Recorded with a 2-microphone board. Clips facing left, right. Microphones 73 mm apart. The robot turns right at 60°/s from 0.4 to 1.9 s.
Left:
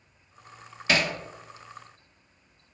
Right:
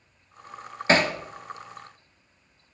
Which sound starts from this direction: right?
Hammering, at 0.9 s.